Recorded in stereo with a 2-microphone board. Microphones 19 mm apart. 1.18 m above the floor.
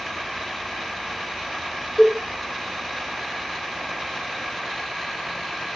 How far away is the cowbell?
About 0.8 m.